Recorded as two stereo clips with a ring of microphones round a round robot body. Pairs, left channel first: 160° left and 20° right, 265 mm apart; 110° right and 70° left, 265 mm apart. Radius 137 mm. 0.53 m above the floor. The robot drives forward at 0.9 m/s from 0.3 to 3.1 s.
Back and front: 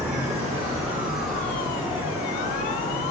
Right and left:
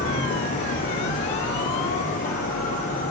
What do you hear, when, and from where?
0.0 s an insect: 85° right, 1.7 m; by 3.1 s 145° right, 3 m